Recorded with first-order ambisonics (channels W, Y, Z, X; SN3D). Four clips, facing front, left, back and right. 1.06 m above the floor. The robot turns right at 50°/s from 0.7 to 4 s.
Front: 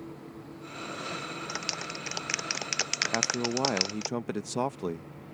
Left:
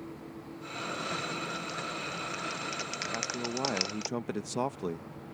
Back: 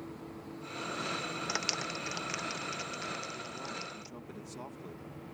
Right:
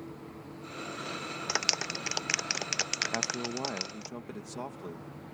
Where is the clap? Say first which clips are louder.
Right 5 dB, back 1 dB; 100° right; by 4.1 s 25° left.